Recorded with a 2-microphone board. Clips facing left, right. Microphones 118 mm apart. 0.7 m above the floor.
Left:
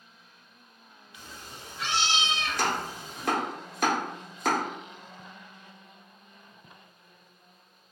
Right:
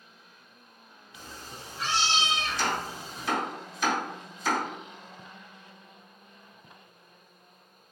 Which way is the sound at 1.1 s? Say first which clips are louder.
Right 2 dB; 40° right (ahead or behind).